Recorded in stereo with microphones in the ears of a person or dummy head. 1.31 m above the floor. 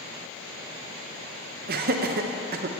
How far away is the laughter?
About 0.7 m.